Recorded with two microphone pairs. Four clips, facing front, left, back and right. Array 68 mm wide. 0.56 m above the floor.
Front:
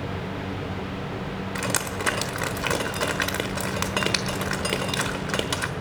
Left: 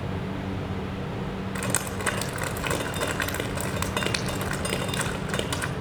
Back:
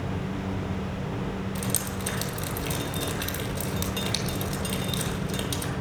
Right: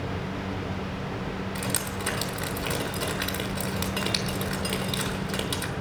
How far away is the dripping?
About 1.1 m.